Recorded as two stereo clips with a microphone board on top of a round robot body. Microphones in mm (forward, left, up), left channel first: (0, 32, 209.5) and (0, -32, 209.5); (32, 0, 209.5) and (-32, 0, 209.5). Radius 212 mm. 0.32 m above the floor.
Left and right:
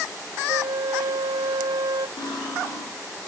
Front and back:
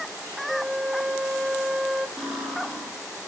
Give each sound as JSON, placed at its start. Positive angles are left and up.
{"t": 0.5, "sound": "a flute", "azimuth_deg": -95, "distance_m": 0.9}
{"t": 2.2, "sound": "cutlery clinking", "azimuth_deg": 90, "distance_m": 9.5}